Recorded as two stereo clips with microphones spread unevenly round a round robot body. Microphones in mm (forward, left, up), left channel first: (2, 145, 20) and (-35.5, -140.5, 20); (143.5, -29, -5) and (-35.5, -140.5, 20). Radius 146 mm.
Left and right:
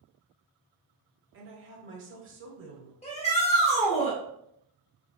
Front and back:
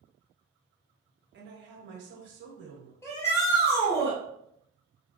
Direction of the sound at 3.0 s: 60° left.